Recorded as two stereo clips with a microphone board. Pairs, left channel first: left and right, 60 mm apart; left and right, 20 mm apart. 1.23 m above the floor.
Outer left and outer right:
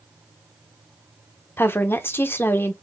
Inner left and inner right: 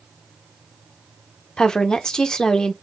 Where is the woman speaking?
40° left (ahead or behind), 0.8 m.